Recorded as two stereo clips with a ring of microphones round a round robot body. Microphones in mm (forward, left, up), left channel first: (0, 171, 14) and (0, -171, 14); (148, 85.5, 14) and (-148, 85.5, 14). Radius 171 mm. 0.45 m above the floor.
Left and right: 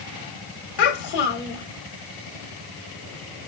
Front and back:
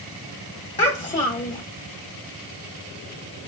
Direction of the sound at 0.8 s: 75° left.